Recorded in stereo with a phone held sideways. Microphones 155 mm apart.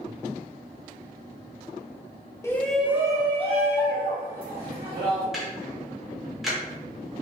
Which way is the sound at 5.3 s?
Centre (ahead or behind).